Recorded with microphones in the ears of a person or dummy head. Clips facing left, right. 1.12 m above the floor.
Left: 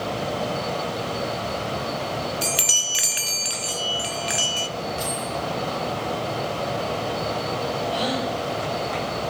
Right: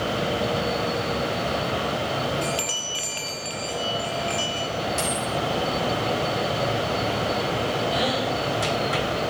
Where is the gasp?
25° right (ahead or behind), 6.5 m.